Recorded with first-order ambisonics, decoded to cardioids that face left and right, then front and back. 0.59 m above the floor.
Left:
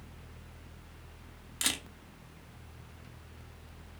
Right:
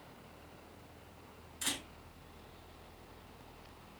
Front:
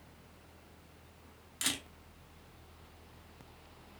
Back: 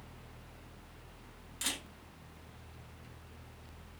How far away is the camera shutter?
About 0.9 m.